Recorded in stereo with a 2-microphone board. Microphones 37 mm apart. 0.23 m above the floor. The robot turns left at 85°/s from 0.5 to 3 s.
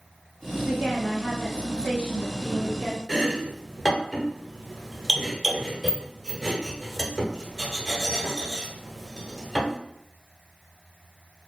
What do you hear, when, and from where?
0.7 s a woman speaking: 140° right, 1.7 m; by 3.0 s 20° left, 1.7 m
3.1 s chopping: centre (ahead or behind), 1.0 m